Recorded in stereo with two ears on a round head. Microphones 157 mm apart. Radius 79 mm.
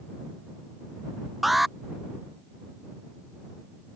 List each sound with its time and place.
1.4 s an alarm: centre (ahead or behind)